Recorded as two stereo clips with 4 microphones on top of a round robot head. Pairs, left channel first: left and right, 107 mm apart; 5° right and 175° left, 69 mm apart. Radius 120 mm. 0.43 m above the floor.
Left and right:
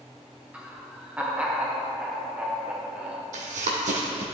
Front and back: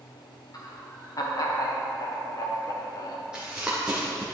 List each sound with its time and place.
0.5 s laughter: 15° right, 1.6 m
3.3 s running footsteps: 100° right, 1.2 m